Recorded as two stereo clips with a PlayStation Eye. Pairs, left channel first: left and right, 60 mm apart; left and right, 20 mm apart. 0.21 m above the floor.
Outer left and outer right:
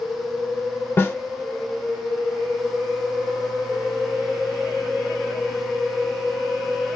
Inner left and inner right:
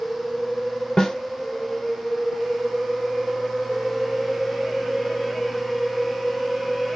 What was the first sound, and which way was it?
A snare drum, 30° left (ahead or behind).